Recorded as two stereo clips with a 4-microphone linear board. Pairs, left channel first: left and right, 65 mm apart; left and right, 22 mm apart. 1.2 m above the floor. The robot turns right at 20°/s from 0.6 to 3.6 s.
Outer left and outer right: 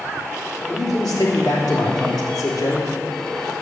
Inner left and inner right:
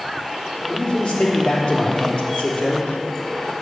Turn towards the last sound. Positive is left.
turn(degrees=130)